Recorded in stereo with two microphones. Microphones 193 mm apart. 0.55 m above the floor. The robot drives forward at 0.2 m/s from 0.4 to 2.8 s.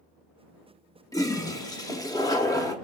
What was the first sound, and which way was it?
A toilet flushing, 20° left (ahead or behind).